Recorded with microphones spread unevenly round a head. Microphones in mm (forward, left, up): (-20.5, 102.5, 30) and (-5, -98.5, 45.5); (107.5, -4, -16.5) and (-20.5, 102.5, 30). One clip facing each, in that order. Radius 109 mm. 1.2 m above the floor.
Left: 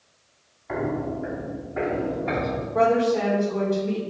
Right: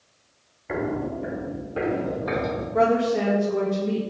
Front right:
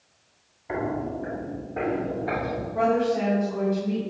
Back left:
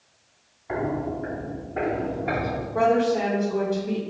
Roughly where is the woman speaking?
Behind right.